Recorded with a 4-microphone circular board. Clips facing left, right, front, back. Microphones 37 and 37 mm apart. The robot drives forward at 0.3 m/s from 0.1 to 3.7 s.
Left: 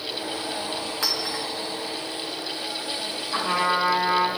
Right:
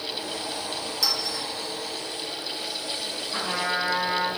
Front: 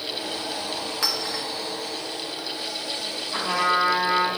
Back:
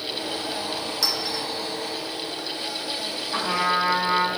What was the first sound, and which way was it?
A clink, 50° left.